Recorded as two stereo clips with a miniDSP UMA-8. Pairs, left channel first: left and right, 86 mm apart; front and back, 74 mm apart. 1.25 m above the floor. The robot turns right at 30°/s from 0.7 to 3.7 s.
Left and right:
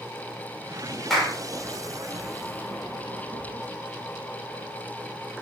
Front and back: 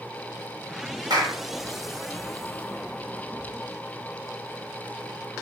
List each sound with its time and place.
1.1 s a clap: straight behind, 4 m; by 1.4 s 170° right, 4 m